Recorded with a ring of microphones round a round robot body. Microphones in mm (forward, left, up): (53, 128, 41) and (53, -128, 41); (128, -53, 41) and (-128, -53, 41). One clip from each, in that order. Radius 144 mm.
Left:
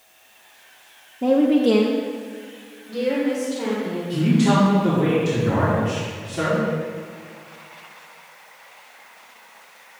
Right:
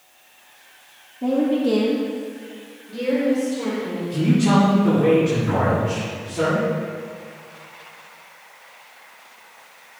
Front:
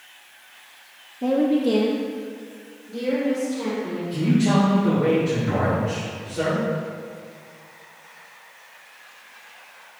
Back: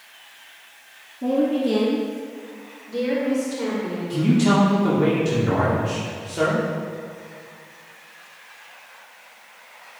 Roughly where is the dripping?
No dripping in this recording.